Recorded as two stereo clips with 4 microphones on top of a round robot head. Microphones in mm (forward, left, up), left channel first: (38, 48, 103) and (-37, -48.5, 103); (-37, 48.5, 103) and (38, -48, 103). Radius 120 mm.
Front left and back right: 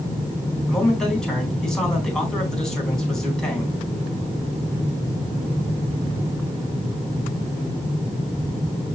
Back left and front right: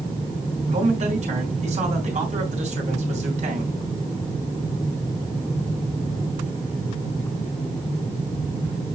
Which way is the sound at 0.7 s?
30° right.